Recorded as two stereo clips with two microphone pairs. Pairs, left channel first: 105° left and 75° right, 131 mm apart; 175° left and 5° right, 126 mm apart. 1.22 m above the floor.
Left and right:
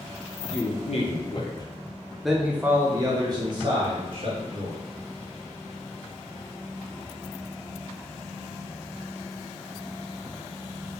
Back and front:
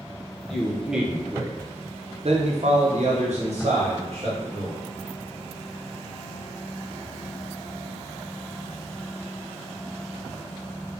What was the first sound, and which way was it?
A man speaking, 90° left.